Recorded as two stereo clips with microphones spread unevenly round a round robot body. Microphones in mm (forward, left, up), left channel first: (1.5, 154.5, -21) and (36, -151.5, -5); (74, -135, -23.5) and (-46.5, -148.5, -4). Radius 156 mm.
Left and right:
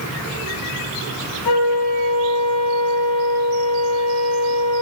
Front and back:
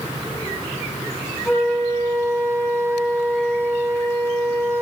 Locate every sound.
1.4 s a flute: 105° left, 3 m